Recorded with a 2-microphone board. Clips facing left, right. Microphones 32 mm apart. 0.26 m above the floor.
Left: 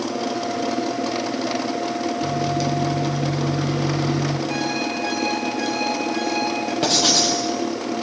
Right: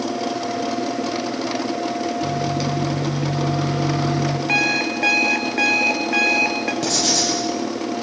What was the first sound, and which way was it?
A microwave, 10° right (ahead or behind).